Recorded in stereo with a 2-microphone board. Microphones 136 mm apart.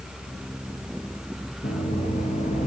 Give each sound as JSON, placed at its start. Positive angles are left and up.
{"t": 1.6, "sound": "knocking", "side_deg": 50, "distance_m": 2.0}